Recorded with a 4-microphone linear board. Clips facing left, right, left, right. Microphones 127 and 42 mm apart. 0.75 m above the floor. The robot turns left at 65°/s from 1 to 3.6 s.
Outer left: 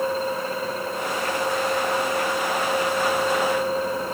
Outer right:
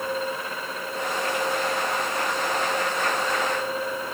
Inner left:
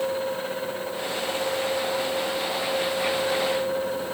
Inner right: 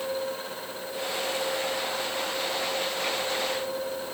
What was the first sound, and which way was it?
Only background noise.